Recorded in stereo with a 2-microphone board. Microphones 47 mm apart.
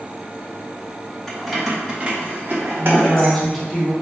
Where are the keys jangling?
10° left (ahead or behind), 0.9 m; by 3.4 s 65° right (ahead or behind), 1.4 m.